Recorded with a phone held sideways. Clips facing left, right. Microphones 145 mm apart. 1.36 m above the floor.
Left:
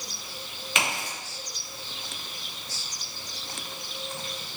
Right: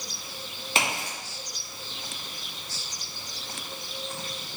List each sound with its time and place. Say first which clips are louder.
0.8 s a crack: right 1 dB; 35° right (ahead or behind), 2.5 m